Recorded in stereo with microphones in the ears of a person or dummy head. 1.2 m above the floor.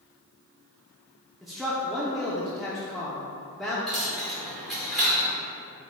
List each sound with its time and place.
1.4 s a man speaking: centre (ahead or behind), 0.6 m
3.9 s a dropped coin: centre (ahead or behind), 0.6 m